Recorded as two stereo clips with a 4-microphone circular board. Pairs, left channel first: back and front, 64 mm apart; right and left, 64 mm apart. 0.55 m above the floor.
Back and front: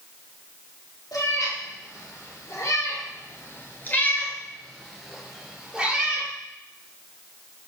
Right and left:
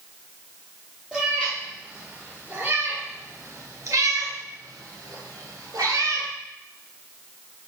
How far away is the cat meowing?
About 2.5 m.